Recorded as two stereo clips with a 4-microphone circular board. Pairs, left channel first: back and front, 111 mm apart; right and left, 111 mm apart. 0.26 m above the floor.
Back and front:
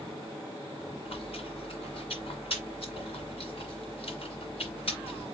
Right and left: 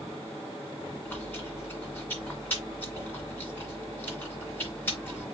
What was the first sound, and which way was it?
Chewing, 160° right.